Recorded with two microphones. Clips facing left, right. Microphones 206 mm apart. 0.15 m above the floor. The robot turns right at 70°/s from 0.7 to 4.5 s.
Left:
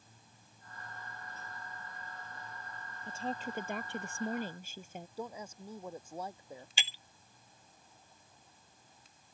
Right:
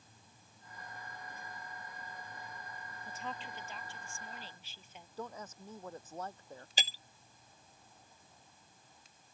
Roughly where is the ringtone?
I don't hear a ringtone.